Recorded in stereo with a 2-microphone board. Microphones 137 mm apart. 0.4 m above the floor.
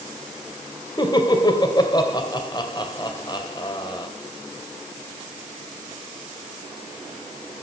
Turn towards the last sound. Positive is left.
turn(degrees=30)  # may be behind; listen again after turning